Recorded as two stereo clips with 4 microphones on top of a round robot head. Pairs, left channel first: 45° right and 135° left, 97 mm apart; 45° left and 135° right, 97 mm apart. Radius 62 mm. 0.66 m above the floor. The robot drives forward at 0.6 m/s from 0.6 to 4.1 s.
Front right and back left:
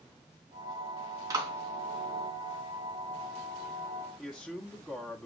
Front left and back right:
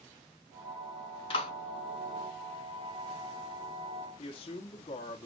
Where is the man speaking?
50° left, 1.4 m.